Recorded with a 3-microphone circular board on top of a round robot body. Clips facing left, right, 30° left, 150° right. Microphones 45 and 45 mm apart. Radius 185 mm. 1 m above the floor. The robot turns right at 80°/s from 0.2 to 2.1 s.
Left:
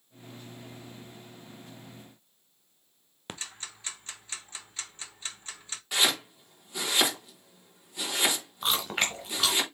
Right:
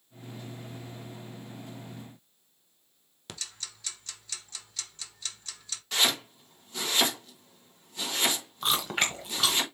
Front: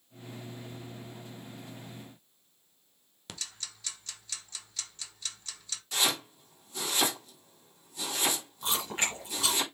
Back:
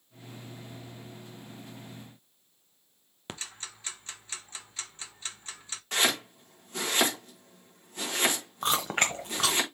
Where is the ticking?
155° left, 1.1 m.